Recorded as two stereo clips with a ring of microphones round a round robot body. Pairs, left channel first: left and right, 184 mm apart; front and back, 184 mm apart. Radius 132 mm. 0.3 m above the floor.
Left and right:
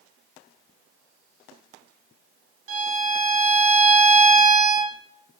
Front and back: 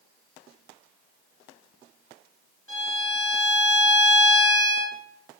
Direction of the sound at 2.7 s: 80° right.